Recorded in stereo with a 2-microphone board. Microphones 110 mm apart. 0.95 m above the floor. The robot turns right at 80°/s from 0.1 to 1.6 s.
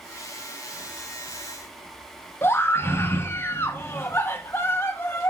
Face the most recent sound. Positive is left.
turn(degrees=20)  # may be behind; listen again after turning